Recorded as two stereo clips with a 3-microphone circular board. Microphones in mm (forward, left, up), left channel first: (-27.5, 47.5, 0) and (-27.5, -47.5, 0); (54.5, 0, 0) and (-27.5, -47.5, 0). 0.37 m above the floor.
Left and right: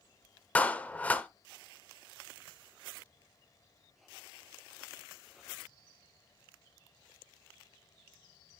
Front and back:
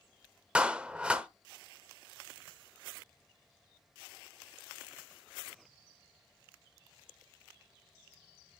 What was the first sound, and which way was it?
A clap, 145° left.